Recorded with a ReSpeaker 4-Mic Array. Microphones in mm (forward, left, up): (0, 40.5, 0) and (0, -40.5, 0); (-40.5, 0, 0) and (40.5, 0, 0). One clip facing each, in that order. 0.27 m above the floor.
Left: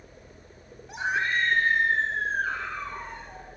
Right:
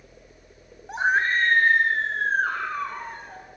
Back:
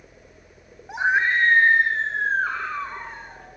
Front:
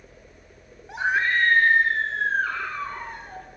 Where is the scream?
115° right, 1.3 m.